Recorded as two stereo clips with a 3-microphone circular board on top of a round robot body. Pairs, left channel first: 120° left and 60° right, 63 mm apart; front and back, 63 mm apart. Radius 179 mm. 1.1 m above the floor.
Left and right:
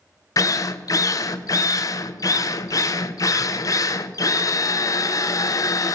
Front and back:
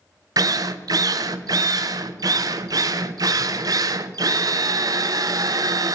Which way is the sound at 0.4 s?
155° left.